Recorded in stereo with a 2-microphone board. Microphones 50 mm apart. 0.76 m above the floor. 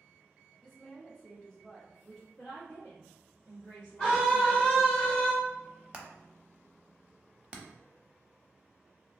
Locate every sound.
0.6 s a woman speaking: 20° left (ahead or behind), 1.0 m
2.4 s a woman speaking: 45° left (ahead or behind), 1.4 m
4.0 s a scream: 10° left (ahead or behind), 1.0 m
5.9 s hammering: 20° right (ahead or behind), 0.5 m